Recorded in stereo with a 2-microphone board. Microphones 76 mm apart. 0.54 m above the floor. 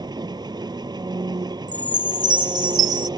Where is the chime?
60° right (ahead or behind).